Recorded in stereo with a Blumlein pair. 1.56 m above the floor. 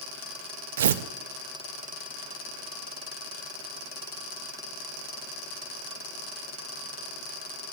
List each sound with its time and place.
0.8 s tearing paper: 60° right, 0.6 m